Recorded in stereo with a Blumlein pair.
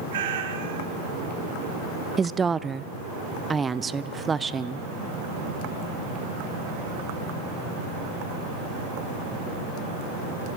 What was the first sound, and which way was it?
A cat meowing, 55° right.